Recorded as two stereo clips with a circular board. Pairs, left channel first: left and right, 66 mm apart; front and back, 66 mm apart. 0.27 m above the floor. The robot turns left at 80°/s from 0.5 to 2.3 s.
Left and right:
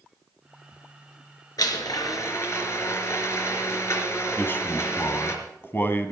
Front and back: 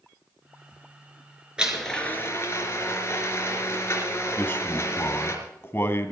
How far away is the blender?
About 3.5 m.